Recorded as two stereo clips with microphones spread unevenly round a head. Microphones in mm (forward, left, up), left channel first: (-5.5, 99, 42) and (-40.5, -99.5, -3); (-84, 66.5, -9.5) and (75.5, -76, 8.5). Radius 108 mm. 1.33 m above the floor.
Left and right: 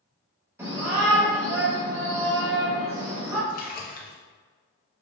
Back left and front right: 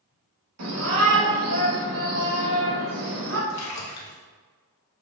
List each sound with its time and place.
0.6 s a shout: 20° right, 3 m
3.5 s a splash: 125° left, 1.4 m